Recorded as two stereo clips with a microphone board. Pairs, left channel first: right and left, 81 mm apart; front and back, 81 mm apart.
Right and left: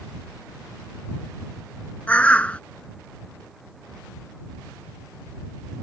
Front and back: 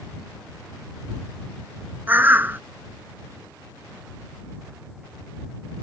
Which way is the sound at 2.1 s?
145° right.